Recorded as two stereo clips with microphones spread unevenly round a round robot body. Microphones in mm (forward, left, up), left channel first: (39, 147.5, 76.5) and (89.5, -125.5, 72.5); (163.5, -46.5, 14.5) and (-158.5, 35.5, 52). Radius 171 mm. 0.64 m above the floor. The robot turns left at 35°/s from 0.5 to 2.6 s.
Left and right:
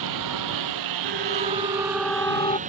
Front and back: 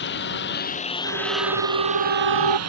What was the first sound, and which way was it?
A lawn mower, 75° right.